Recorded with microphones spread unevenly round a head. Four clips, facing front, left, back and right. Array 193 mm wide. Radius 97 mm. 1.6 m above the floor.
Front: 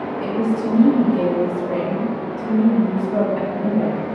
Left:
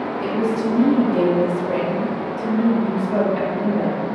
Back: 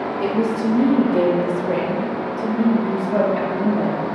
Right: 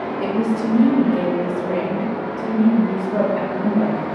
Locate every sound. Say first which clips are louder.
0.2 s a woman speaking: right 1 dB, back 1 dB; 135° right, 0.5 m; by 4.1 s 145° left, 2 m